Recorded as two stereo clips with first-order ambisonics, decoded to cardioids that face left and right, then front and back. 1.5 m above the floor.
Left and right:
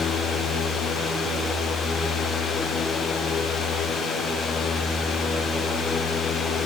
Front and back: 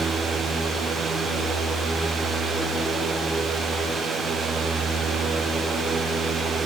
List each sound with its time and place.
Only background noise.